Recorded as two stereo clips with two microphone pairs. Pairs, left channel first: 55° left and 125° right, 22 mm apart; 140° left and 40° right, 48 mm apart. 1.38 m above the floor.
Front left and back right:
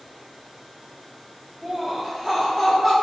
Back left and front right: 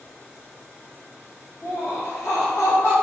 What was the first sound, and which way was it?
Laughter, 165° left.